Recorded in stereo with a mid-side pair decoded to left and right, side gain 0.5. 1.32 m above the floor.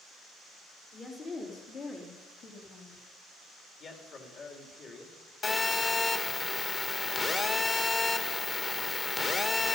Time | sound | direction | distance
0.9 | a woman speaking | 45° left | 3 m
3.8 | a man speaking | 45° left | 3.5 m
5.4 | a phone buzzing | 30° left | 1.8 m